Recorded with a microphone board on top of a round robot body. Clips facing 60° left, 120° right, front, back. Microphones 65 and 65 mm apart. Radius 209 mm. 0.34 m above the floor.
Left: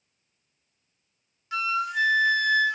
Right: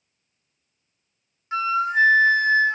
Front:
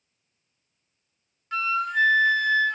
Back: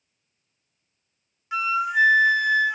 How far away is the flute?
About 0.6 m.